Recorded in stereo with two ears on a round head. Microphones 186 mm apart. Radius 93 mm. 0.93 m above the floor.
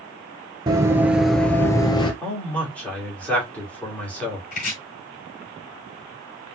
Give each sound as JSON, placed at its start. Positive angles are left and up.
{"t": 0.7, "sound": "running footsteps", "side_deg": -20, "distance_m": 1.0}
{"t": 2.2, "sound": "a man speaking", "side_deg": 10, "distance_m": 2.5}
{"t": 4.5, "sound": "chopping", "side_deg": 45, "distance_m": 3.0}